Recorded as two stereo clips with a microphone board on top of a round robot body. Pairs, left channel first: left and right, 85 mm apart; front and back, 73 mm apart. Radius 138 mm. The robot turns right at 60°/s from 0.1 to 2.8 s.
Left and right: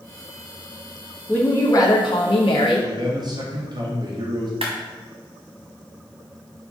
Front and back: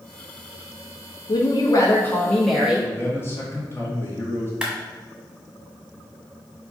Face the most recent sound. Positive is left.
turn(degrees=-95)